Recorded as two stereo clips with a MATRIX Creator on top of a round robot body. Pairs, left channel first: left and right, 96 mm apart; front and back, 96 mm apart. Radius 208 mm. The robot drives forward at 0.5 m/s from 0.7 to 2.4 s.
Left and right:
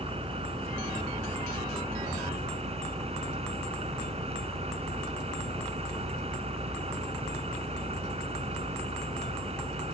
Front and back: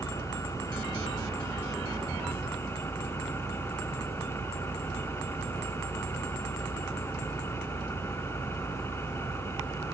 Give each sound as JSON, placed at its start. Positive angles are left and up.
{"t": 0.0, "sound": "an engine running", "azimuth_deg": -65}